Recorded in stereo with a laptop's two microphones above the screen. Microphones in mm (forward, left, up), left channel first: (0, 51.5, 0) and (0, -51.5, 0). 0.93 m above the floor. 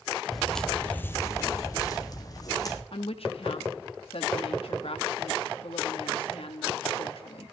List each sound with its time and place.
0.3 s footsteps: centre (ahead or behind), 1.3 m; by 2.8 s 35° left (ahead or behind), 2.0 m
2.9 s a woman speaking: 65° left (ahead or behind), 1.2 m